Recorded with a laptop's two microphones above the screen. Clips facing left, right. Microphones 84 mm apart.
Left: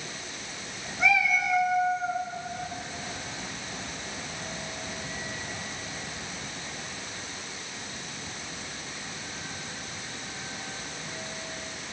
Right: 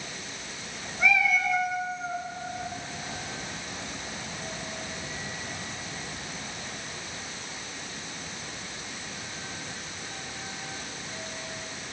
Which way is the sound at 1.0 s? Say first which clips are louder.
Even; 10° left (ahead or behind).